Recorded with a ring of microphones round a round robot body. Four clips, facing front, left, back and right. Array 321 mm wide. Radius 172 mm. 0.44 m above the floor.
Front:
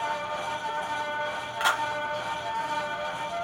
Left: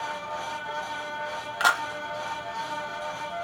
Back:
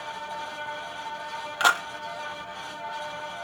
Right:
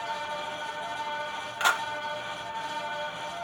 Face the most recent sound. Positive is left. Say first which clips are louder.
# left 3 dB, back 3 dB
turn(degrees=145)